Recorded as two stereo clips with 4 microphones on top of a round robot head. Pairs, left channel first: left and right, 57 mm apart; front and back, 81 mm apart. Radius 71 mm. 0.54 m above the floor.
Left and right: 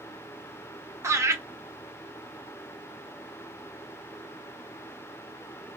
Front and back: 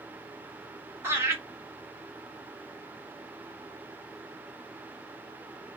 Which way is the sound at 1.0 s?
120° right.